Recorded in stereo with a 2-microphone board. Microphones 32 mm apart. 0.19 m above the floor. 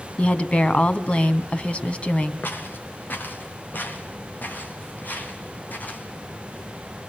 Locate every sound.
0.2 s a woman speaking: 35° left (ahead or behind), 1.3 m
2.4 s footsteps: 75° left (ahead or behind), 4 m; by 6.0 s 55° left (ahead or behind), 6 m